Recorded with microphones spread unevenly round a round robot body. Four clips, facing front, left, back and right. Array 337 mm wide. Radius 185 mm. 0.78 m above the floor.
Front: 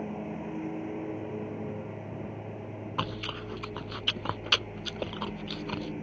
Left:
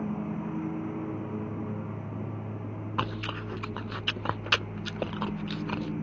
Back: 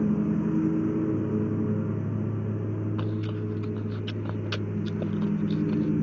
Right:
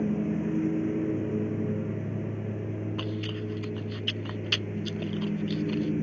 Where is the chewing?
55° left.